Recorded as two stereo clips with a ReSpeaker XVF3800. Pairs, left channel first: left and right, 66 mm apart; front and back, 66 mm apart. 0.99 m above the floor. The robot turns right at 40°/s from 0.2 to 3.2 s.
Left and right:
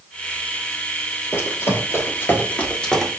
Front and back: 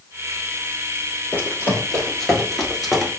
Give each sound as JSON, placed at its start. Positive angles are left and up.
{"t": 1.3, "sound": "running footsteps", "azimuth_deg": 45, "distance_m": 1.4}